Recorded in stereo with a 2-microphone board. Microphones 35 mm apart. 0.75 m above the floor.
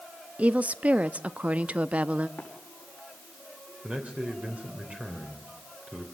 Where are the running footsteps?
40° left (ahead or behind), 5 m.